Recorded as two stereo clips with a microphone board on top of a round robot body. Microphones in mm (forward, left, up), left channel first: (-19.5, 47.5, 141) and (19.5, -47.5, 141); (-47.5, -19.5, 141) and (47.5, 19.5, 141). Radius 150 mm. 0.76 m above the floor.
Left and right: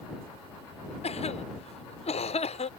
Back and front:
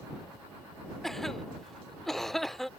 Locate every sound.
1.0 s a cough: 115° left